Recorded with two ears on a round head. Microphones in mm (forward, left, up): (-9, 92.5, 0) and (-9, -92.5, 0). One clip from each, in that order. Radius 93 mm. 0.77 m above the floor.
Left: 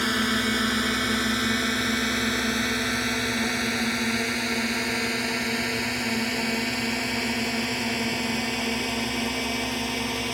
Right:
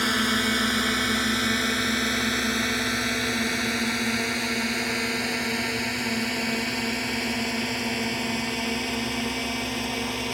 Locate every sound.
0.0 s a drone: 10° right (ahead or behind); by 10.3 s 5° left (ahead or behind)